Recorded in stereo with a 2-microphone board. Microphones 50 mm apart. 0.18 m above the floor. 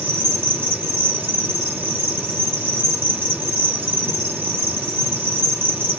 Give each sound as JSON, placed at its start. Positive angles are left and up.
{"t": 0.0, "sound": "an insect", "side_deg": -50, "distance_m": 2.0}